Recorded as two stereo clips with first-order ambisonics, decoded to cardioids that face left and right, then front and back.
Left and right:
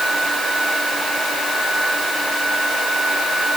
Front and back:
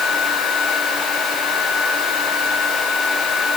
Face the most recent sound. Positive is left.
No sound to turn to.